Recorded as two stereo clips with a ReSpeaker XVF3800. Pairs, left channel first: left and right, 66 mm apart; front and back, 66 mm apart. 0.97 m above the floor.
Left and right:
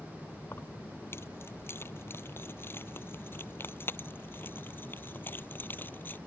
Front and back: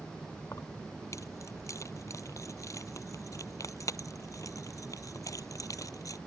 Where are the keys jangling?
40° left; by 6.2 s 30° left.